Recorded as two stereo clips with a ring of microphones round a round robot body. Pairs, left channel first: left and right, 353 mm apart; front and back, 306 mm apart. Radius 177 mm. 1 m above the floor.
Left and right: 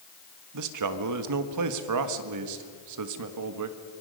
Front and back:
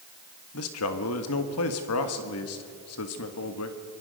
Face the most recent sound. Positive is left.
turn(degrees=-50)